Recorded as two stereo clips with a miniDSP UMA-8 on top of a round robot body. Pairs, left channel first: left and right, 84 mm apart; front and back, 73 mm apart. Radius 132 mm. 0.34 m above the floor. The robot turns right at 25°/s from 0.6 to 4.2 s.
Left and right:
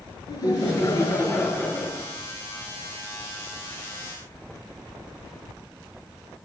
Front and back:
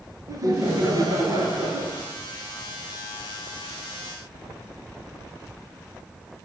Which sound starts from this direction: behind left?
Laughter, at 0.3 s.